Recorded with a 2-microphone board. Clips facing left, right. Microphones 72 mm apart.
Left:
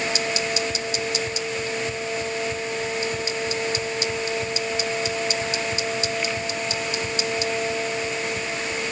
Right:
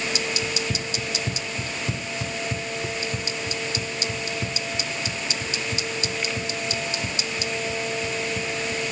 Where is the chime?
I don't hear a chime.